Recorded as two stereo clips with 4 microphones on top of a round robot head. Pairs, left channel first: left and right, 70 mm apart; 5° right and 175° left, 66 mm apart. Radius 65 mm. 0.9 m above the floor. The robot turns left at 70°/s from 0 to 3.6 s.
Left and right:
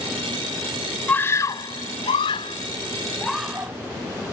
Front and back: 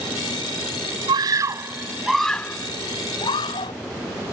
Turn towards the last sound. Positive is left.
turn(degrees=-15)